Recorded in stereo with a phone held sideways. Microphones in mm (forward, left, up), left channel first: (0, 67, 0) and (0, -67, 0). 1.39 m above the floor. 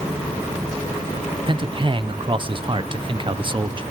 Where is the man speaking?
40° right (ahead or behind), 0.8 m.